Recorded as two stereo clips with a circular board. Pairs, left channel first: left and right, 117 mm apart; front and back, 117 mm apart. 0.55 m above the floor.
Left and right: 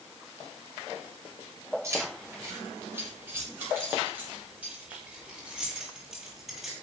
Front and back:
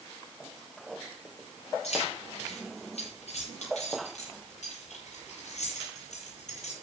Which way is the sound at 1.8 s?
25° right.